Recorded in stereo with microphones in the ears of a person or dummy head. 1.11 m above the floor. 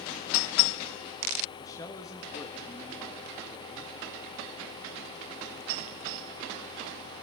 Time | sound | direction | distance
1.6 | a man speaking | 15° left (ahead or behind) | 0.8 m